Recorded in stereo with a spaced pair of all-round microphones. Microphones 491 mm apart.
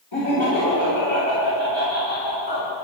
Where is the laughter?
65° left (ahead or behind), 1.9 m; by 2.7 s 60° left (ahead or behind), 4 m.